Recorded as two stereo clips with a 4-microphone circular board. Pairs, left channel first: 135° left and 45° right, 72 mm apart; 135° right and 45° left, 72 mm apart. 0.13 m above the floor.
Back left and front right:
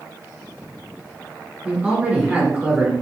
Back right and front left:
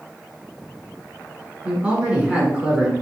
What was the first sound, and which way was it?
A man speaking, straight ahead.